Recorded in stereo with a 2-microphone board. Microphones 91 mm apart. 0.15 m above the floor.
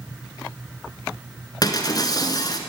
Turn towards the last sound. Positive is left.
turn(degrees=45)  # may be behind; listen again after turning